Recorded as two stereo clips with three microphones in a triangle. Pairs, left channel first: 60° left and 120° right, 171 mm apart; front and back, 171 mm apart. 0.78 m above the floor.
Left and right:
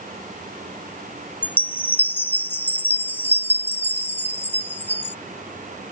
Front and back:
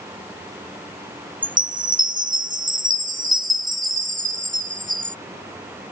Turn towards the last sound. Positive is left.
turn(degrees=140)